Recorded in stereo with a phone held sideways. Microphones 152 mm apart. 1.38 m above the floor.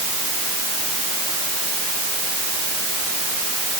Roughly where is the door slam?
I don't hear a door slam.